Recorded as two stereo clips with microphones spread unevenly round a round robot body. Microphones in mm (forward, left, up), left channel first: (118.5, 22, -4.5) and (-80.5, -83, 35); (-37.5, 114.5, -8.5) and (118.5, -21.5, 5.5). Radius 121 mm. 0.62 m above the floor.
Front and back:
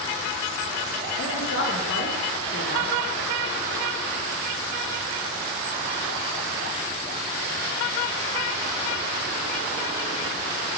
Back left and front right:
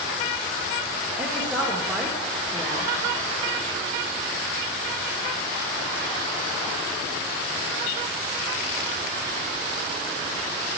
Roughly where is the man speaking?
Ahead left.